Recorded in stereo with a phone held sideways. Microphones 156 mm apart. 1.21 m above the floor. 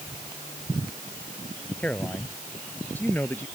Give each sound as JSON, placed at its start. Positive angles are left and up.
{"t": 1.8, "sound": "a man speaking", "side_deg": 10}